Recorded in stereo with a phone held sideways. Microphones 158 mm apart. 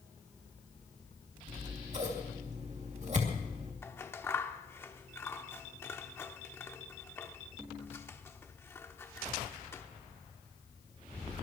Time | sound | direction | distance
1.5 | scissors | 45° right (ahead or behind) | 2.5 m
3.8 | scissors | 15° left (ahead or behind) | 0.9 m